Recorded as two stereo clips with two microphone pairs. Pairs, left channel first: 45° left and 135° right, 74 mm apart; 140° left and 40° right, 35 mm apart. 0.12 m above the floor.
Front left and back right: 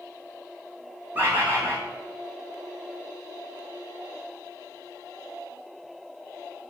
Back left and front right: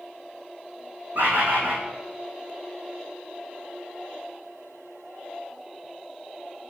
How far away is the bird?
About 1.8 m.